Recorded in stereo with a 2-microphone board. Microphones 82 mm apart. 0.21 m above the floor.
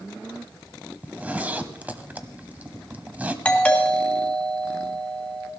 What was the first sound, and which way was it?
A zipper, 20° right (ahead or behind).